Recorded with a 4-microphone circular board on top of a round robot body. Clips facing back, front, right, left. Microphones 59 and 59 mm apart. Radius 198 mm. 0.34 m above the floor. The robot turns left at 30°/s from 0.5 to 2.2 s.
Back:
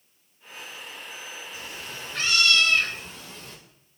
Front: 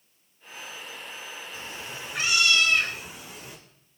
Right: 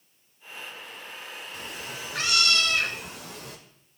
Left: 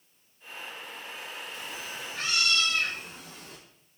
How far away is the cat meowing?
About 0.8 m.